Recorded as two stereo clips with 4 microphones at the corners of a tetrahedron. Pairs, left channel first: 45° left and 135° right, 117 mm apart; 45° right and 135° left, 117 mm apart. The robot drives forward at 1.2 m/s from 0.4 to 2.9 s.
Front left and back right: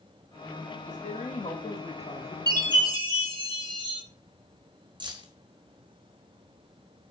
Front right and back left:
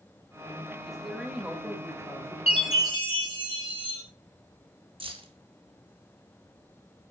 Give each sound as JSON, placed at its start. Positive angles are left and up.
{"t": 0.8, "sound": "a woman speaking", "azimuth_deg": 45, "distance_m": 3.0}
{"t": 2.5, "sound": "a chime", "azimuth_deg": -75, "distance_m": 3.0}
{"t": 5.0, "sound": "keys jangling", "azimuth_deg": 175, "distance_m": 1.2}